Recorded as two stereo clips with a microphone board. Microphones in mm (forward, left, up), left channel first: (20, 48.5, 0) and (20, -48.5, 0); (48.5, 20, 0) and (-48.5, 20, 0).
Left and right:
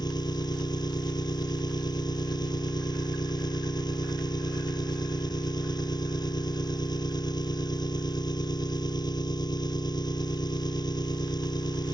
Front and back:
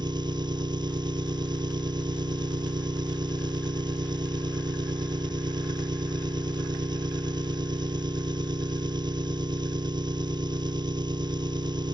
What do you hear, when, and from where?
0.0 s an engine running: 135° left